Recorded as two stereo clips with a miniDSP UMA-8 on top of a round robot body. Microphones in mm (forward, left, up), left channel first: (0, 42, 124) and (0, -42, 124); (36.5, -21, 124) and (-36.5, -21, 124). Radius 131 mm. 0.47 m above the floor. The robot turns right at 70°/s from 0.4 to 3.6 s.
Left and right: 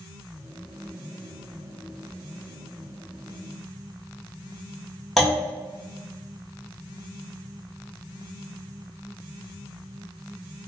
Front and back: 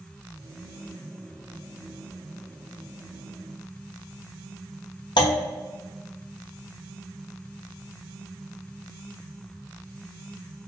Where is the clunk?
Straight ahead, 1.1 m.